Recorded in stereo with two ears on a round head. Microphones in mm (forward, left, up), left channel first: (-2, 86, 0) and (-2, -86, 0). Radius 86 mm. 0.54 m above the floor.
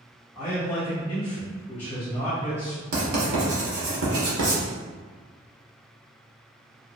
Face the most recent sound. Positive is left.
turn(degrees=-60)  # may be behind; listen again after turning